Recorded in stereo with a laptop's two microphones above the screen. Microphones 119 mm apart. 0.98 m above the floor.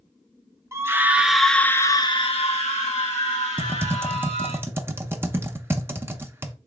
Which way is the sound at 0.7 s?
25° right (ahead or behind).